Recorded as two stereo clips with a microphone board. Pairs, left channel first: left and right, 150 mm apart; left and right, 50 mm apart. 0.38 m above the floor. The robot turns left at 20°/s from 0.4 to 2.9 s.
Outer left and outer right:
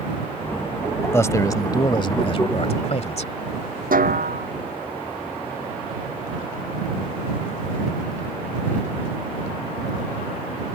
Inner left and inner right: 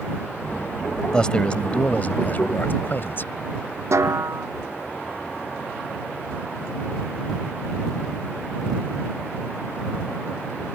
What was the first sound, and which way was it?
A man speaking, 160° left.